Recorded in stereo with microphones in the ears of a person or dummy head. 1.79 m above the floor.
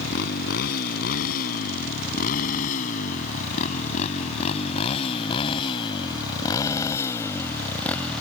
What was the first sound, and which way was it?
A motorcycle, 55° left (ahead or behind).